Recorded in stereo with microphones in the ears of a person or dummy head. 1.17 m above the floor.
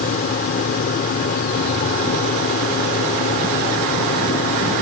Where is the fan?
55° left (ahead or behind).